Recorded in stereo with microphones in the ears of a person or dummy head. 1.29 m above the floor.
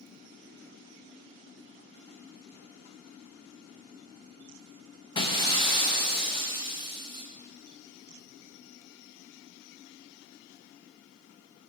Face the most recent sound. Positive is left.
turn(degrees=25)  # may be behind; listen again after turning